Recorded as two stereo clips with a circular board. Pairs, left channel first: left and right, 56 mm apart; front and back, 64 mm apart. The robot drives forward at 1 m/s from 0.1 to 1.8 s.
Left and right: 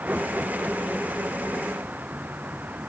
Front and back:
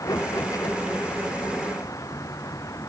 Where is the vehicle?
30° right.